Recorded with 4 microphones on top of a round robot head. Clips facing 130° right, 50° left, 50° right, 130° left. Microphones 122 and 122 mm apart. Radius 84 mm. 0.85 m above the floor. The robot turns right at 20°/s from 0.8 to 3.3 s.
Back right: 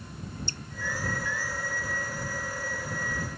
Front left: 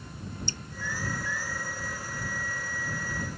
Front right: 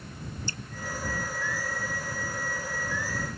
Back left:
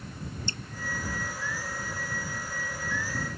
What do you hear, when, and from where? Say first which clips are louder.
0.5 s dripping: front left 1 dB, even; 65° left